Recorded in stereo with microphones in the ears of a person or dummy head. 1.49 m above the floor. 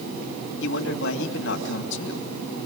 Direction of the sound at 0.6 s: 70° left (ahead or behind).